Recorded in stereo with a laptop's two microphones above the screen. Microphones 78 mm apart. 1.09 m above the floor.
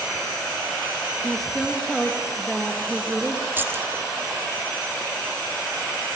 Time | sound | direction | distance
1.2 | a woman speaking | 5° left (ahead or behind) | 1.4 m
3.6 | keys jangling | 25° right (ahead or behind) | 1.0 m